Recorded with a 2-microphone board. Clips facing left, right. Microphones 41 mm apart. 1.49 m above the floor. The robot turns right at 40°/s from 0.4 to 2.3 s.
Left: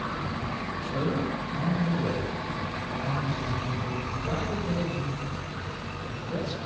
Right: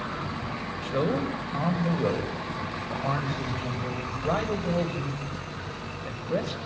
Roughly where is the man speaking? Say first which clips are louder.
Right 3 dB; behind right.